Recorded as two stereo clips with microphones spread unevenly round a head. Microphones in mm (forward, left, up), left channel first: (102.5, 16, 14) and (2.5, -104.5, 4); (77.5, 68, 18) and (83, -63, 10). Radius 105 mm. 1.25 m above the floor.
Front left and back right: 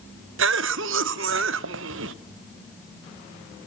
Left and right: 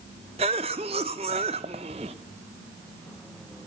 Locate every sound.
0.4 s a cough: 155° right, 0.7 m